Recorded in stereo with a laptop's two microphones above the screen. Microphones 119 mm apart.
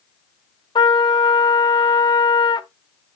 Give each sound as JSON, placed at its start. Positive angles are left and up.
{"t": 0.8, "sound": "a trumpet", "side_deg": 40, "distance_m": 0.6}